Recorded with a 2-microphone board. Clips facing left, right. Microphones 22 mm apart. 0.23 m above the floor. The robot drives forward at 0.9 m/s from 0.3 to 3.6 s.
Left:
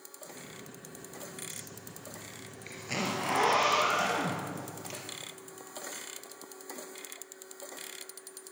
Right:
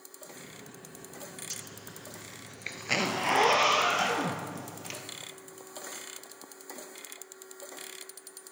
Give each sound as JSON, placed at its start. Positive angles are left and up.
{"t": 1.5, "sound": "a zipper", "side_deg": -70, "distance_m": 1.1}